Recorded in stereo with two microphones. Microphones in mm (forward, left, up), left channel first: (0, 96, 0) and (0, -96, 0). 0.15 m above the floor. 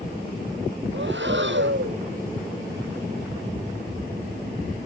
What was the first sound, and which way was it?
Breathing, 75° right (ahead or behind).